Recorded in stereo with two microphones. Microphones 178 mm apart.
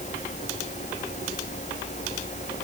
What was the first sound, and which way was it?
Only background noise.